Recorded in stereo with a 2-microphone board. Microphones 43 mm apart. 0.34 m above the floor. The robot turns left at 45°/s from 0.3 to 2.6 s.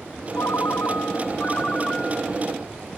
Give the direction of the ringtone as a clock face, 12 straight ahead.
9 o'clock.